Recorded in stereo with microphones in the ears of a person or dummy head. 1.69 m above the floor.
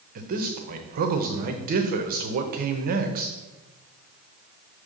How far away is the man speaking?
About 0.7 m.